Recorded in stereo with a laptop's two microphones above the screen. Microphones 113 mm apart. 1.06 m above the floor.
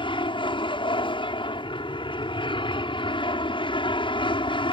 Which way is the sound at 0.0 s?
50° left (ahead or behind).